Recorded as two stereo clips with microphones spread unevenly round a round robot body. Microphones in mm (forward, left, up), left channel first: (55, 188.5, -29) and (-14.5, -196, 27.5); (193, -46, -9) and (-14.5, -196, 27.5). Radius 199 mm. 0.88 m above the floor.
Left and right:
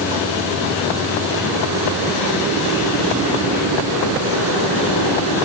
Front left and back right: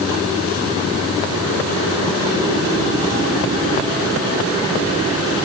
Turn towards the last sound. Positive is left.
No sound to turn to.